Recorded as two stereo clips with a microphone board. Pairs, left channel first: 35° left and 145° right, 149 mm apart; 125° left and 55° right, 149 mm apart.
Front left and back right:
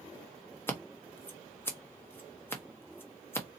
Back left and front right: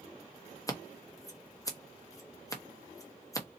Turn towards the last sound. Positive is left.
turn(degrees=90)